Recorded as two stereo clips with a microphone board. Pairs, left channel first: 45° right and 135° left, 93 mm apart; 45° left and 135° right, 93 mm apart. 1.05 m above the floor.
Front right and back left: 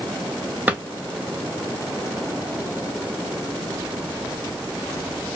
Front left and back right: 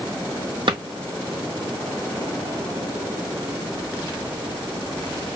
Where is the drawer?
155° right, 0.9 m.